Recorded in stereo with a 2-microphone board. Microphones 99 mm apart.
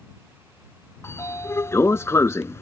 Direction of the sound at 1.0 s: 30° left (ahead or behind).